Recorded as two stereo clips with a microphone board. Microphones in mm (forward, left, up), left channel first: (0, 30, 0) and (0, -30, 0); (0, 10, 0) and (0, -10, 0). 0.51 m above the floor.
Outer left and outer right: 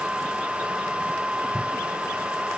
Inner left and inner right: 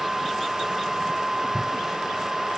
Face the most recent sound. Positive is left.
No sound to turn to.